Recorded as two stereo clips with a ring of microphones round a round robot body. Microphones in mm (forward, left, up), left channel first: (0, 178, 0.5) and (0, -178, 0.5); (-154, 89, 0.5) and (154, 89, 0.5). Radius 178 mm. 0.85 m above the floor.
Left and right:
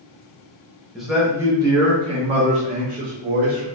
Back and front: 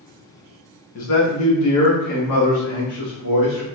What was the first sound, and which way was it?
A man speaking, straight behind.